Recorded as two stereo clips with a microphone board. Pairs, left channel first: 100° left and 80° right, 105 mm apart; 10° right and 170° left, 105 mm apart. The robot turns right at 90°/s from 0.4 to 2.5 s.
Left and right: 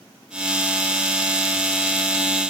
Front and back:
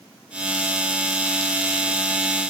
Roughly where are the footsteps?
I don't hear footsteps.